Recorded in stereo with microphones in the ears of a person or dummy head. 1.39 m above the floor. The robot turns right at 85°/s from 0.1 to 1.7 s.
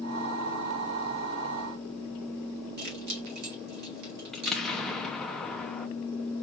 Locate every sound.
2.8 s keys jangling: 50° right (ahead or behind), 1.3 m
4.3 s an explosion: centre (ahead or behind), 0.7 m